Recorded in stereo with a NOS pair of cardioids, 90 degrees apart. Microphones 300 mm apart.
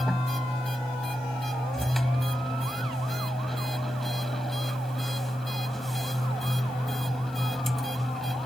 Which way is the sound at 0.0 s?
Straight ahead.